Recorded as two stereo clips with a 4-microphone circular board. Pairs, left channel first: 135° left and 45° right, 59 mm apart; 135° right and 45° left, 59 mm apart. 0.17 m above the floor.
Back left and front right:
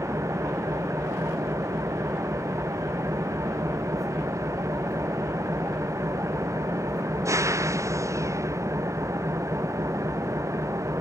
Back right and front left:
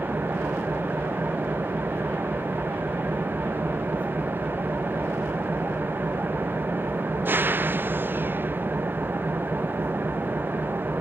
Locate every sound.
0.0 s an engine running: 10° right